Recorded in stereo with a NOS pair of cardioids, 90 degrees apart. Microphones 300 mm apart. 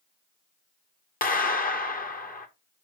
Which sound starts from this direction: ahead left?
A clap, at 1.2 s.